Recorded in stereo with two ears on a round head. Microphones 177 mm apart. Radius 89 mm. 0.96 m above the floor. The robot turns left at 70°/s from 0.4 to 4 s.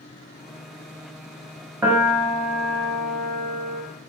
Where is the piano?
165° right, 0.8 m; by 3.8 s 55° left, 0.8 m.